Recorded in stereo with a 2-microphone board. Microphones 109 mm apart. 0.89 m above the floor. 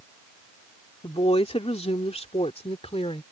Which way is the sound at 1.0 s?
60° left (ahead or behind).